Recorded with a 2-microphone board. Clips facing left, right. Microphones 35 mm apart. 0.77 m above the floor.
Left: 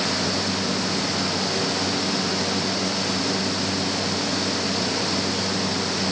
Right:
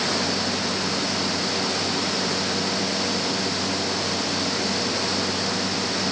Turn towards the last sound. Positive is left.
No sound to turn to.